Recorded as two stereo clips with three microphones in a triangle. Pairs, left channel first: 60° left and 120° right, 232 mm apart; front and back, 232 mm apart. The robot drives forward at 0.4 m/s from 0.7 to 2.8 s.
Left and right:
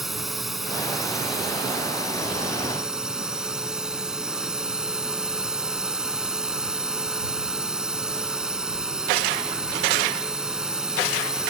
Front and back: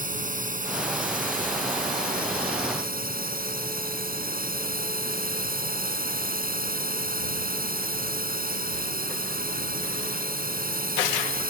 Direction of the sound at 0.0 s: 150° left.